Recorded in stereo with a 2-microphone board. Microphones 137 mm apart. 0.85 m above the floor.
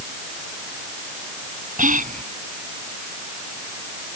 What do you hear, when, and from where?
1.8 s whispering: 75° right (ahead or behind)